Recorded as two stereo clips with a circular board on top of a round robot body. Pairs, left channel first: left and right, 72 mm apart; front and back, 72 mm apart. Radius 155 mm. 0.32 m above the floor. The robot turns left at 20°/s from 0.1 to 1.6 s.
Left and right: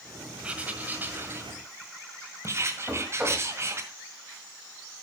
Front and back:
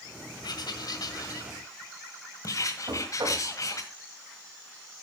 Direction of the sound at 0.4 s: 15° right.